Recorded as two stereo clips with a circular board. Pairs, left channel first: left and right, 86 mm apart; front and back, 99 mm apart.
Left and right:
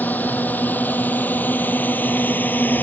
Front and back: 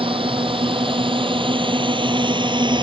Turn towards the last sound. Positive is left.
turn(degrees=155)